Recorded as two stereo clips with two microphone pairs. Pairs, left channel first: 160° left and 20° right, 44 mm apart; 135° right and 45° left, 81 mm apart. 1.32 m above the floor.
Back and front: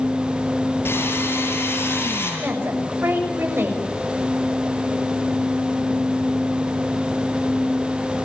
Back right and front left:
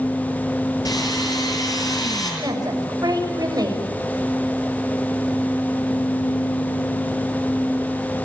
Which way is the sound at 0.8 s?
170° right.